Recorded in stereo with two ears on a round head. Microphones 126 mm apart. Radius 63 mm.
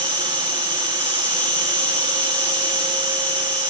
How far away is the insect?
About 4 m.